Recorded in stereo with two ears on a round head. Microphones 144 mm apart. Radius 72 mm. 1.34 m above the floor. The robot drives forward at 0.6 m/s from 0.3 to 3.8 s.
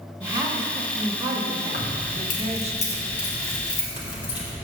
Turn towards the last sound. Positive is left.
turn(degrees=30)  # may be behind; listen again after turning